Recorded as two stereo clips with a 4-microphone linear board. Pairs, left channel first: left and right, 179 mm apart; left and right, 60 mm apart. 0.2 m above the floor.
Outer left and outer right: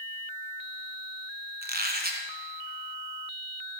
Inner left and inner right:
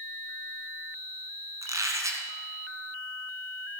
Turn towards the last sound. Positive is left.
turn(degrees=-55)  # may be behind; listen again after turning